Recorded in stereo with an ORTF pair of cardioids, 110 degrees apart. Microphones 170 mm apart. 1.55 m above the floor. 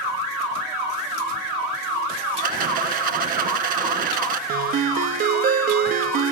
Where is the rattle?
60° right, 1.7 m.